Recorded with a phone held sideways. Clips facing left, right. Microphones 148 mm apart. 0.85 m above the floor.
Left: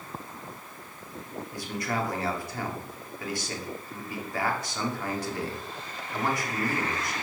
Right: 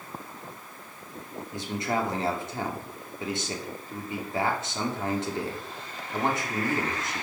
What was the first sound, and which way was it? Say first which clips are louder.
A man speaking: right 3 dB; 20° right (ahead or behind).